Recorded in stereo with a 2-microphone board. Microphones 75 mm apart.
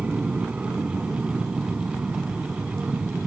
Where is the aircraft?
15° right (ahead or behind).